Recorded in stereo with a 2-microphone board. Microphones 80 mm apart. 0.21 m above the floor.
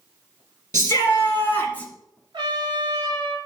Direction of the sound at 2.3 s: 65° right (ahead or behind).